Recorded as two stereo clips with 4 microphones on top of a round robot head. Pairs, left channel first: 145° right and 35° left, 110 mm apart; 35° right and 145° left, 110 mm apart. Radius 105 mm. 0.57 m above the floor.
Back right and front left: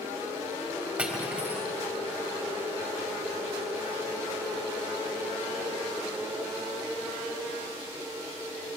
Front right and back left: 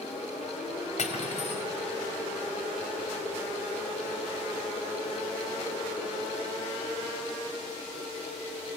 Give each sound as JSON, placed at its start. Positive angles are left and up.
{"t": 1.0, "sound": "cutlery clinking", "azimuth_deg": -45, "distance_m": 2.0}